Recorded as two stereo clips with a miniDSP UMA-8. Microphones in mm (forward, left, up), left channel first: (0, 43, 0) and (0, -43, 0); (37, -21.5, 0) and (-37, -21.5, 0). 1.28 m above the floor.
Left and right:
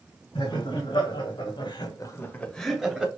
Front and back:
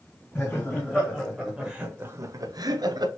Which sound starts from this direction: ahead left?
Laughter, at 0.3 s.